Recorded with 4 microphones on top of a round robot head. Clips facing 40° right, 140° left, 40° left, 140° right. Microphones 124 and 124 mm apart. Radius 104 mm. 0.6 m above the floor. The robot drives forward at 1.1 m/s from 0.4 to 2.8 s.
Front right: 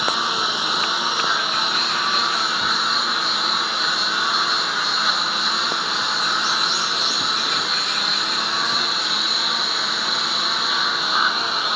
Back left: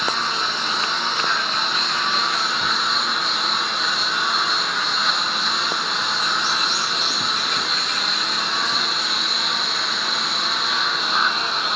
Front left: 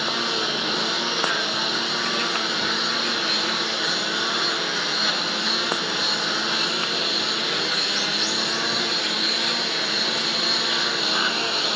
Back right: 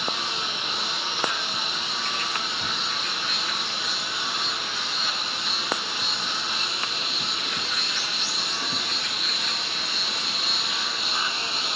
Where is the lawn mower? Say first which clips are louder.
Front right 1 dB, front left 5 dB; 40° left; by 11.8 s 50° left.